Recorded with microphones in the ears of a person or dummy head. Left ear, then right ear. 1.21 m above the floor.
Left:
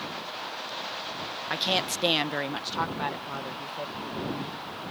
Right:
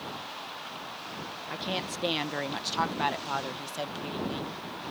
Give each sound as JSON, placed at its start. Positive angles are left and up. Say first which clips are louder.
{"t": 1.5, "sound": "a woman speaking", "louder": "left 7 dB", "side_deg": 35}